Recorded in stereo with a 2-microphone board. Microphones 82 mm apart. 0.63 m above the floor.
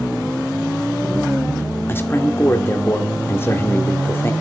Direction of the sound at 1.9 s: 25° left (ahead or behind).